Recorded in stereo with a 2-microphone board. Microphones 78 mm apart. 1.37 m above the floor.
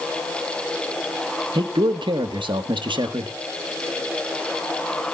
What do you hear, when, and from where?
1.6 s a man speaking: 80° right, 1.5 m